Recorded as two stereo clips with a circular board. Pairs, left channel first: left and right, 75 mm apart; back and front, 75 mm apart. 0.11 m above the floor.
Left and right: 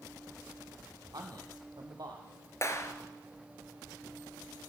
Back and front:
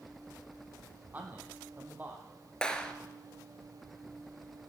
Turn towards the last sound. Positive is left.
turn(degrees=105)